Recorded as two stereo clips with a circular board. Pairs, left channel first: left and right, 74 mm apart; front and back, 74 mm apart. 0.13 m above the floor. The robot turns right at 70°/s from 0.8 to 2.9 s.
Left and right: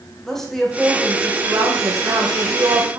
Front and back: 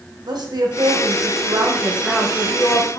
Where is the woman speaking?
175° left, 5 m; by 3.0 s 40° right, 5 m.